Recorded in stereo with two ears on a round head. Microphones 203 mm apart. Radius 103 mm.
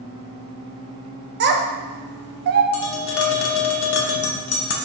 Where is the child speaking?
50° right (ahead or behind), 0.5 m.